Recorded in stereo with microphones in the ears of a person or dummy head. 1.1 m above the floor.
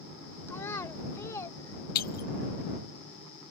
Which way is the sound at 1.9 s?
55° left (ahead or behind).